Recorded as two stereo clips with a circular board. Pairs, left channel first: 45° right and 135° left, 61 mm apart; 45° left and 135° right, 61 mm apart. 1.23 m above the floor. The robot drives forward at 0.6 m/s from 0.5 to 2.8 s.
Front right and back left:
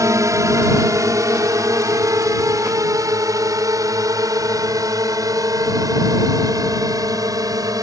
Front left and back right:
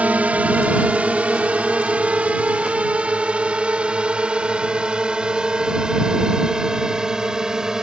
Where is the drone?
160° left; by 7.8 s 145° left.